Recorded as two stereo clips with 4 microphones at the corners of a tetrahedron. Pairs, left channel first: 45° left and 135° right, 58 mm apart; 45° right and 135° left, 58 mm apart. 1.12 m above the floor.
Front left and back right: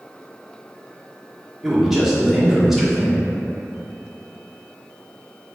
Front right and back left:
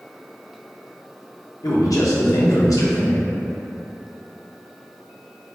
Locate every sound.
1.6 s a man speaking: 50° right, 0.9 m